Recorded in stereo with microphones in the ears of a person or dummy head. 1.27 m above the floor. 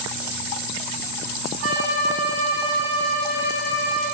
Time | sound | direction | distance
1.6 | a violin | 80° right | 9 m